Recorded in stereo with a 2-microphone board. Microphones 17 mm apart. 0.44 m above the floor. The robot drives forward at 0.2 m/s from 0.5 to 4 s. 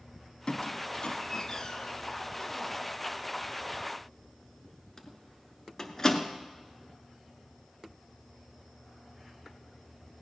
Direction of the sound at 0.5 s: 55° left (ahead or behind).